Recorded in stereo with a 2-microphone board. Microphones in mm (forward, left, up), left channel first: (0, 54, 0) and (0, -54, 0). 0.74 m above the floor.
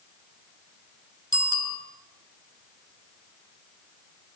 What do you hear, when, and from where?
1.3 s a bicycle bell: 30° right (ahead or behind), 6.5 m